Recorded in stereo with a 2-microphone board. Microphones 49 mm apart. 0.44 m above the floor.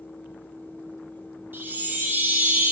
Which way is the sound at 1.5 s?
40° right (ahead or behind).